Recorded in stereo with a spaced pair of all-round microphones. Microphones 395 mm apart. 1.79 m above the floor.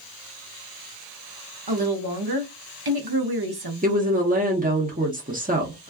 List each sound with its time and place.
1.7 s a woman speaking: 70° right (ahead or behind), 0.8 m
3.8 s a woman speaking: 20° right (ahead or behind), 0.8 m